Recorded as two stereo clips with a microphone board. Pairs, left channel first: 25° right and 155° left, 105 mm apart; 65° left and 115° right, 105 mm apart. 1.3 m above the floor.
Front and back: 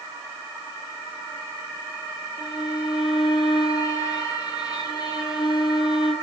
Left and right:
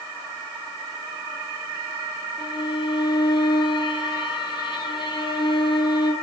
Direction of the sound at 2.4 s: 25° left.